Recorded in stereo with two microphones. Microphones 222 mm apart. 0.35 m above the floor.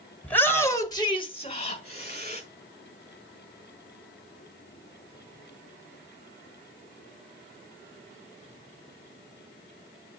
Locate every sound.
0.2 s a shout: 5° left (ahead or behind), 1.8 m; by 2.4 s 30° left (ahead or behind), 1.9 m